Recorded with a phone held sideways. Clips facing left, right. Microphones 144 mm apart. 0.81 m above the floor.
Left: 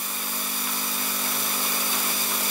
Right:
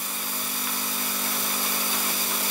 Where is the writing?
I don't hear writing.